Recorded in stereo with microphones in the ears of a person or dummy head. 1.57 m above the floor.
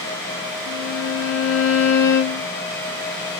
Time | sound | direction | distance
0.7 | a violin | 55° left (ahead or behind) | 0.6 m